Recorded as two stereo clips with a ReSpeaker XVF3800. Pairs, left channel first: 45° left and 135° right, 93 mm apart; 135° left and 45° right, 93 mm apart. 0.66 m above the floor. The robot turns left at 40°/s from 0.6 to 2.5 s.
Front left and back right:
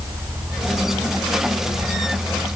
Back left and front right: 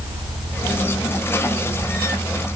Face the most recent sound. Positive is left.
No sound to turn to.